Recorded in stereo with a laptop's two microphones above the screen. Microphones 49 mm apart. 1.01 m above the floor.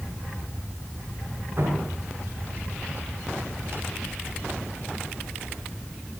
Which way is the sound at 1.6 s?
55° right (ahead or behind).